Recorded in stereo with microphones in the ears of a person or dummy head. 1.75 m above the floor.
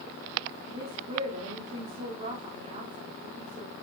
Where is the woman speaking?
40° right (ahead or behind), 4 m.